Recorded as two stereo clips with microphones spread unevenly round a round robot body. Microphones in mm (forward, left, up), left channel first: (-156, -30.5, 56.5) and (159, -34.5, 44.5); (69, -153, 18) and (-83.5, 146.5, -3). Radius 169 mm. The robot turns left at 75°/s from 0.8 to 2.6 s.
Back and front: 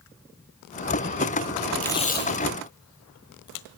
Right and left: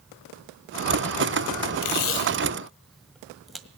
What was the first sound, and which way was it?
Tape being pulled, 95° right.